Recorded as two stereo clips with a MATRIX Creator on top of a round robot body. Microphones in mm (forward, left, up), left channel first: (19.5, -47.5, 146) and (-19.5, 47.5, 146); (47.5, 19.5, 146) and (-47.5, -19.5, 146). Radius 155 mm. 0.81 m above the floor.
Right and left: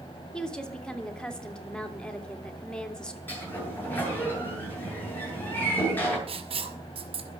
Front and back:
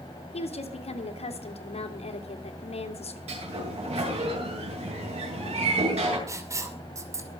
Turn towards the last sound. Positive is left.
turn(degrees=140)